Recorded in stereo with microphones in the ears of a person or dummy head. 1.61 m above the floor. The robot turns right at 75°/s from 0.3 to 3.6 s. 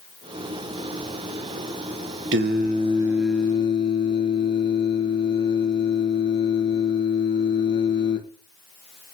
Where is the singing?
65° right, 1.6 m; by 8.2 s 30° left, 1.6 m.